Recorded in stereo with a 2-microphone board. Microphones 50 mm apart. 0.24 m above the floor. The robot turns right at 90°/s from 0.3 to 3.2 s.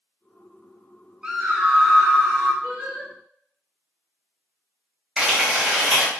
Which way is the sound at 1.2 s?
20° right (ahead or behind).